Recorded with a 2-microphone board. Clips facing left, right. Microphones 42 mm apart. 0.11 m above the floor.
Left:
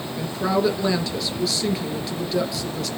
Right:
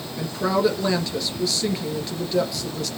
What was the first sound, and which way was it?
A woman speaking, centre (ahead or behind).